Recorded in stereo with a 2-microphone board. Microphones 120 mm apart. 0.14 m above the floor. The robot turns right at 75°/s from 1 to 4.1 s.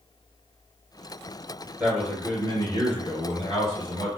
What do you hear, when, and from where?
1.8 s a man speaking: 25° right, 2 m; by 4.2 s 150° left, 2 m